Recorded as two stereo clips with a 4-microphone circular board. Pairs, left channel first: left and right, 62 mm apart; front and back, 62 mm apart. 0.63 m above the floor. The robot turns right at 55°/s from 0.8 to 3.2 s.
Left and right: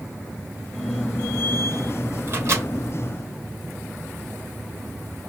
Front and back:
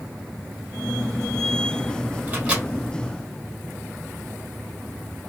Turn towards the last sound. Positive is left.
turn(degrees=-75)